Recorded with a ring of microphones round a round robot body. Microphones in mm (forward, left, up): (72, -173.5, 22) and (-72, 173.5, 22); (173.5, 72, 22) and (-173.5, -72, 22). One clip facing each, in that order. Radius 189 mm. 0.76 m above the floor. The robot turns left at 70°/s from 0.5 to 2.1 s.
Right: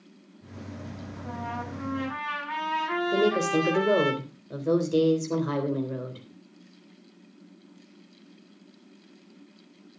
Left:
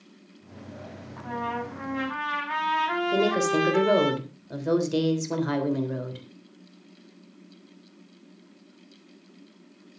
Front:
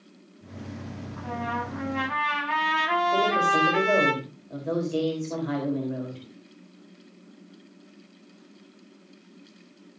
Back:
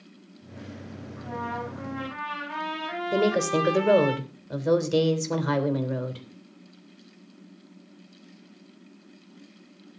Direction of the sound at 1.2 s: 90° left.